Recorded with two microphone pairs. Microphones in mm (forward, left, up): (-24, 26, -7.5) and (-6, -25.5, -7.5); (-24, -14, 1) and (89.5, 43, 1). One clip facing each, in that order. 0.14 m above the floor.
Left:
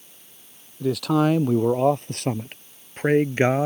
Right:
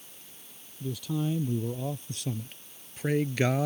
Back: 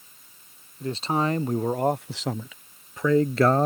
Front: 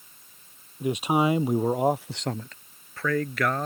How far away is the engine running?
I don't hear an engine running.